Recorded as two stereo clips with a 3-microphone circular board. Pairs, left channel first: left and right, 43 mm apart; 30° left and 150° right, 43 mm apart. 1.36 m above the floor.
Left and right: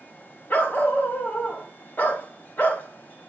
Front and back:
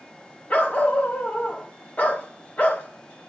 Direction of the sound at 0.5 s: 70° left.